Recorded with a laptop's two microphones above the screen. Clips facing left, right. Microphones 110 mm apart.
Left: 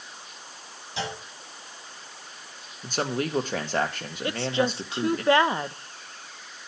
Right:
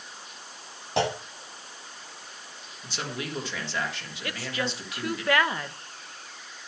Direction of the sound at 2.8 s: 45° left (ahead or behind).